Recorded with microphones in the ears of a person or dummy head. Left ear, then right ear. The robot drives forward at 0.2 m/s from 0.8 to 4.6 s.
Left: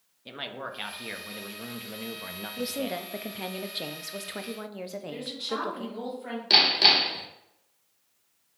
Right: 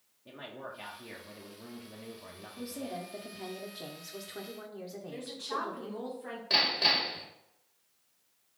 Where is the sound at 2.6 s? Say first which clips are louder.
Left 8 dB; 60° left (ahead or behind), 0.6 m.